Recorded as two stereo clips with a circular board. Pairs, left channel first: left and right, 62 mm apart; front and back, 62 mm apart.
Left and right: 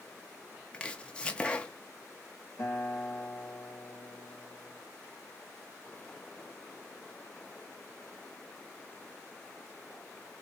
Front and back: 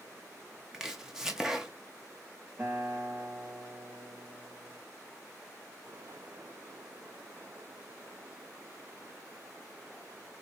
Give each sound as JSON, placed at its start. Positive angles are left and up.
{"t": 0.7, "sound": "chopping", "azimuth_deg": 115, "distance_m": 0.7}
{"t": 2.6, "sound": "a guitar", "azimuth_deg": 125, "distance_m": 2.5}